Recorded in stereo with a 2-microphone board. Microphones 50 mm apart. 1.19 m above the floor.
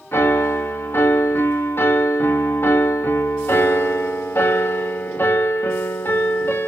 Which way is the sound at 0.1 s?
55° left (ahead or behind).